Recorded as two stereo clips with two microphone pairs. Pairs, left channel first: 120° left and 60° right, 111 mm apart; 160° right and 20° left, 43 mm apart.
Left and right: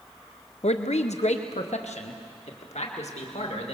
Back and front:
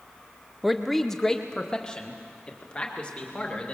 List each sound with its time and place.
0.6 s a man speaking: 100° left, 0.6 m; by 3.7 s 135° left, 2.5 m